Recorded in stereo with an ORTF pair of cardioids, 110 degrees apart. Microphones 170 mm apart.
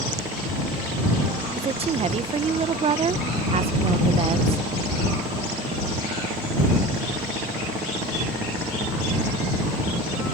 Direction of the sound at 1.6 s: 35° right.